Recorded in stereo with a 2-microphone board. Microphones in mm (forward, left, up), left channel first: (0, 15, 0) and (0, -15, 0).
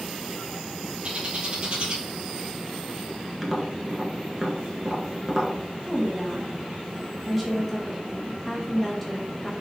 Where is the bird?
40° right (ahead or behind), 1.0 m.